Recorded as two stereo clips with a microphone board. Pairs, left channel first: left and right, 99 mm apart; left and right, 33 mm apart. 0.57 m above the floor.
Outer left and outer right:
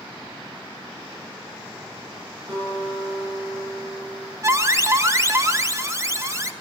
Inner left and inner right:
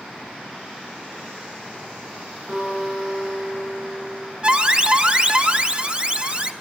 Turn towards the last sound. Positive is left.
turn(degrees=-30)  # may be behind; listen again after turning